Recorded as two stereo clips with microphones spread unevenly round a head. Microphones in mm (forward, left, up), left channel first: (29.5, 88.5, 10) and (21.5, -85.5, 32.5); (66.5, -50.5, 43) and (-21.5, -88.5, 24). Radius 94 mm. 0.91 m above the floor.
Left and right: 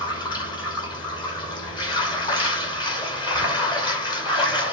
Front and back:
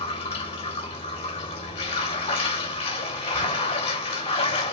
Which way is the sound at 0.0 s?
20° left.